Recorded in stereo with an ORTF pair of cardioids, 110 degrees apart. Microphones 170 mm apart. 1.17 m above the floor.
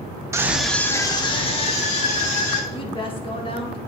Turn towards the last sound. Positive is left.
turn(degrees=30)